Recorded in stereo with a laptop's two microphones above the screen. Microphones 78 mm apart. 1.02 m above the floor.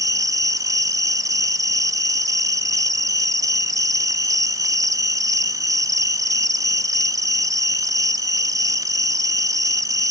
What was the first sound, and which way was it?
An insect, 45° right (ahead or behind).